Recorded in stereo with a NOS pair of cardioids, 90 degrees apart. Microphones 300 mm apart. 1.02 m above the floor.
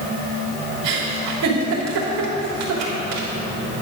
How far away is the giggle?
About 3 m.